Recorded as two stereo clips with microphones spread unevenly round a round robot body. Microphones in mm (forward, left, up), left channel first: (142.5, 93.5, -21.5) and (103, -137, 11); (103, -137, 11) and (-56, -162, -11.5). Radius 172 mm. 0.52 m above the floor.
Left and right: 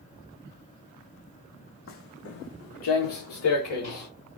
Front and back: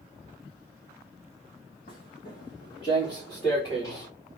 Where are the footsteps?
50° left, 1.1 m; by 4.1 s 90° left, 3 m.